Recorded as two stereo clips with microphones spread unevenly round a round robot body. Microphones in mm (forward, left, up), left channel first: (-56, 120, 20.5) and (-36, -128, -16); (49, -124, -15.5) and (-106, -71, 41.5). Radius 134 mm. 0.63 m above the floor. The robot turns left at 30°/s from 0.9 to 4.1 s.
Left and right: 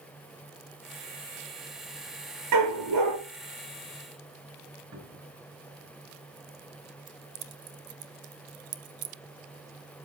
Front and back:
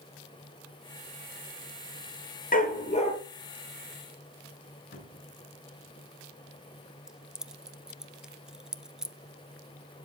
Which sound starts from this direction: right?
Keys jangling, at 7.1 s.